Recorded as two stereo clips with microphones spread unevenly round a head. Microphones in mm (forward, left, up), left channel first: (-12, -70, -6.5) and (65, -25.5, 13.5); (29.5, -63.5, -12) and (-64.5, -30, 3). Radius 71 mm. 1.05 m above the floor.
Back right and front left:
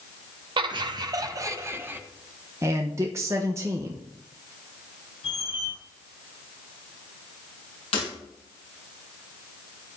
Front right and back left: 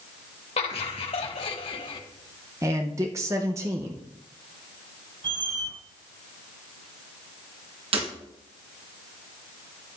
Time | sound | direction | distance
0.6 | laughter | 5° left | 1.3 m
2.6 | a man speaking | 95° left | 0.7 m
5.2 | a squeak | 170° right | 5 m
7.9 | breaking glass | 155° left | 4.5 m